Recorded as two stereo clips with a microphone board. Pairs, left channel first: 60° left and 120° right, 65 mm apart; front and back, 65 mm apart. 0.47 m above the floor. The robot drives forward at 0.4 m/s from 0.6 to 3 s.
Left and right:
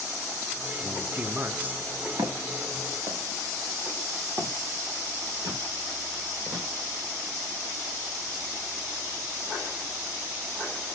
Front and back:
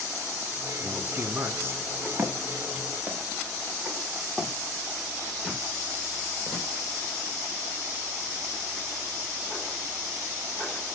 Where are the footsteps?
120° right, 1.9 m; by 6.7 s 80° right, 4 m.